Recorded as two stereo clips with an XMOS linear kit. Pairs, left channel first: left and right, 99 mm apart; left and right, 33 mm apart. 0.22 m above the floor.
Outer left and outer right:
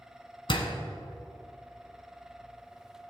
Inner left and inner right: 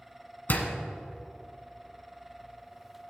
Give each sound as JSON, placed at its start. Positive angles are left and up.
{"t": 0.5, "sound": "a door slam", "side_deg": 60, "distance_m": 1.3}